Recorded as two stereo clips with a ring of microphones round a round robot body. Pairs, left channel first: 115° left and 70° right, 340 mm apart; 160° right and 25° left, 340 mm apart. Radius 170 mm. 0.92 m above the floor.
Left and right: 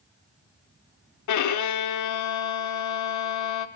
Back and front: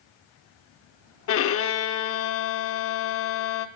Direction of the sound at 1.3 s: 150° left.